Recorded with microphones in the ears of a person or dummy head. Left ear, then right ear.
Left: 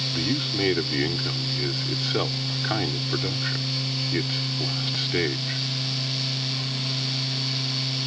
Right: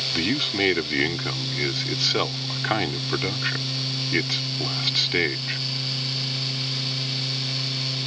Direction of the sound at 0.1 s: 25° right (ahead or behind).